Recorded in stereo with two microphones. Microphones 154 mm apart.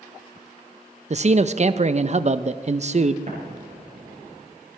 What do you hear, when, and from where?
1.1 s a man speaking: 45° right (ahead or behind), 0.6 m
3.3 s an explosion: 50° right (ahead or behind), 3.5 m